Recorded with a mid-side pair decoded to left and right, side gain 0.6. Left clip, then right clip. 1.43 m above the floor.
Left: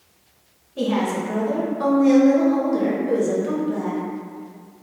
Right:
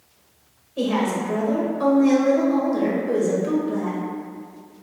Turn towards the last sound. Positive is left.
turn(degrees=5)